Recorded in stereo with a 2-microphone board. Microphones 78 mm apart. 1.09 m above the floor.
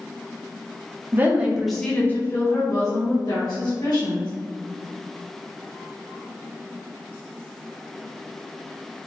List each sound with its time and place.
1.1 s a woman speaking: 25° right (ahead or behind), 0.8 m; by 4.3 s 70° left (ahead or behind), 1.8 m